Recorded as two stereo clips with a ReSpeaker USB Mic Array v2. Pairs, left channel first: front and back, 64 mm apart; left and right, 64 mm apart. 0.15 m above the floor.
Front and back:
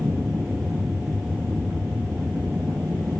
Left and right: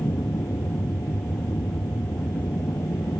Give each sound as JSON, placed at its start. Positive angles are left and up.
{"t": 0.0, "sound": "an aircraft", "azimuth_deg": 110}